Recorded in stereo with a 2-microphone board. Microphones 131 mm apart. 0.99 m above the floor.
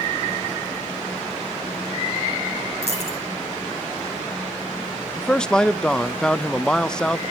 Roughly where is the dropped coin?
Right.